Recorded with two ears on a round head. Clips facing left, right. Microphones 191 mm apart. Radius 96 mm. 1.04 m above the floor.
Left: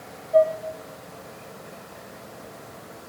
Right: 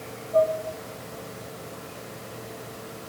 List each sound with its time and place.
0.3 s dishes clattering: 55° left (ahead or behind), 5 m